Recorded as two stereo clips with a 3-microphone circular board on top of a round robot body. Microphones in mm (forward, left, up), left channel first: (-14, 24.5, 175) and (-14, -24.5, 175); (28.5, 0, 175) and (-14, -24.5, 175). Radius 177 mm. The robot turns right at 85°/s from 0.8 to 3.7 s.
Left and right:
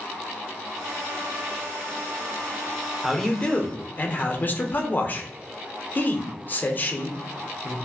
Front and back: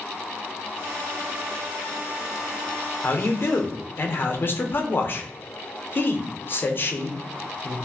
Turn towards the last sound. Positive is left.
turn(degrees=55)